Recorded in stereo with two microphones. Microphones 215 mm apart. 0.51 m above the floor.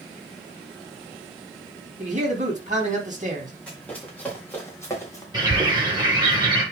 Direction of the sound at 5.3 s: 20° right (ahead or behind).